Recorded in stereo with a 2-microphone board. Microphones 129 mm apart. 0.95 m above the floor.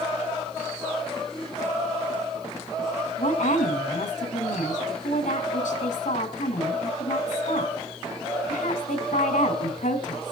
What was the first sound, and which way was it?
A woman speaking, 80° left.